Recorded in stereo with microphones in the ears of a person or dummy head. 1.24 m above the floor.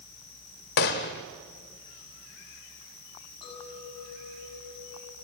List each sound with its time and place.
0.8 s a gunshot: 50° left (ahead or behind), 1.4 m
3.4 s a clink: 25° left (ahead or behind), 8 m